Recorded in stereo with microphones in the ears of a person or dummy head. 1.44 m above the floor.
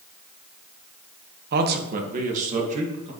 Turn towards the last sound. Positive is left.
turn(degrees=-35)  # may be behind; listen again after turning